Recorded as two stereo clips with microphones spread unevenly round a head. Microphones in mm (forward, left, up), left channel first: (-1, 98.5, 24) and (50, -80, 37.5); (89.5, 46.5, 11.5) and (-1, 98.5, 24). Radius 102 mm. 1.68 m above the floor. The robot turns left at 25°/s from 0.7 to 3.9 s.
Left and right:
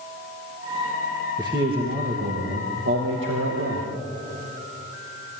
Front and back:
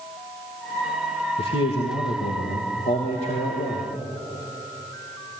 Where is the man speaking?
Straight ahead, 2.5 m; by 3.9 s 65° right, 2.5 m.